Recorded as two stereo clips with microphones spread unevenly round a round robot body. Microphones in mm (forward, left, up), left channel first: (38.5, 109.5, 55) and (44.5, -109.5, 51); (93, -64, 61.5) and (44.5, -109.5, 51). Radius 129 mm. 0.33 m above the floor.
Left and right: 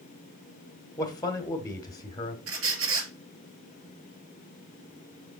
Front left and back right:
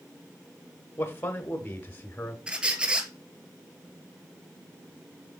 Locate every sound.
1.0 s a man speaking: 55° left, 1.3 m
2.5 s a squeak: 60° right, 1.9 m